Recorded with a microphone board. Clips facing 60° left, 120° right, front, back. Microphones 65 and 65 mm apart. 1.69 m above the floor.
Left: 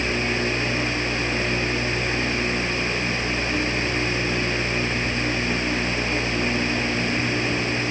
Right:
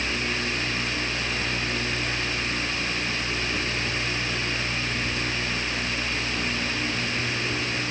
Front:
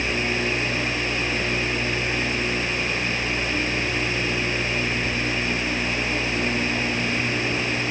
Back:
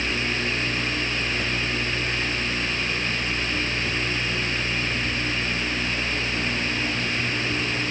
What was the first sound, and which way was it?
Only background noise.